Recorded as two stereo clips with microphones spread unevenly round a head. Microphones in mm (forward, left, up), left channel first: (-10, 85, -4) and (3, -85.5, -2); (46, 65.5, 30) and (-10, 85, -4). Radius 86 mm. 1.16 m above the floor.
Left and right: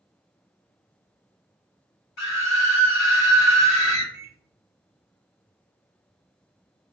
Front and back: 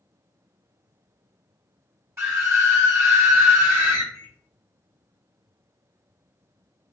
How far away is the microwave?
About 0.9 m.